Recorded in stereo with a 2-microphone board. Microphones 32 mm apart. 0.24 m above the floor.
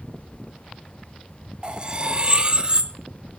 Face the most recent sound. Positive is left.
turn(degrees=-30)  # may be behind; listen again after turning